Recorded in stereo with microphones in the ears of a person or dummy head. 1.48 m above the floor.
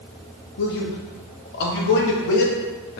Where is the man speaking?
60° left (ahead or behind), 0.7 m.